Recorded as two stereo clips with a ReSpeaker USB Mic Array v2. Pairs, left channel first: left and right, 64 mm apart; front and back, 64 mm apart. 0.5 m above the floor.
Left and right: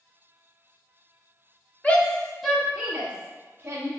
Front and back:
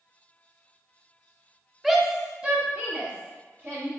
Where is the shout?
100° left, 0.7 m; by 3.9 s 130° right, 1.1 m.